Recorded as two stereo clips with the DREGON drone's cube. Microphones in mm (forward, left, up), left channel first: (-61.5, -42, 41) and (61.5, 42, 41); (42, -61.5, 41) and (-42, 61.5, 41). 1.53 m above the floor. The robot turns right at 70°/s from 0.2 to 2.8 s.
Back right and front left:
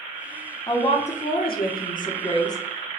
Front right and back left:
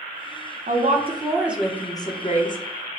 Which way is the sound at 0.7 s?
150° left.